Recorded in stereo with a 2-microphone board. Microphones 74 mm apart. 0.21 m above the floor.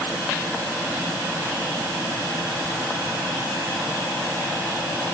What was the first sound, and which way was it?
Only background noise.